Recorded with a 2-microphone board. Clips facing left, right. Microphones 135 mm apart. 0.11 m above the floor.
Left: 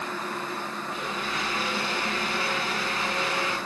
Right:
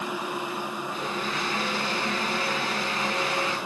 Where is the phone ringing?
I don't hear a phone ringing.